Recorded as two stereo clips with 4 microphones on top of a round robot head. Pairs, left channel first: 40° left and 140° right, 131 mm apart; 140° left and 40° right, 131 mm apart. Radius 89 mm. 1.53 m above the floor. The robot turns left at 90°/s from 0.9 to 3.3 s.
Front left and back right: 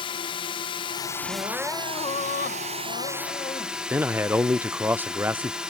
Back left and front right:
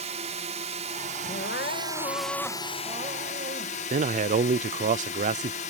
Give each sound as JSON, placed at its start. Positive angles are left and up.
{"t": 0.0, "sound": "a drone", "azimuth_deg": -10}
{"t": 1.3, "sound": "crying", "azimuth_deg": 165}
{"t": 3.9, "sound": "a man speaking", "azimuth_deg": -65}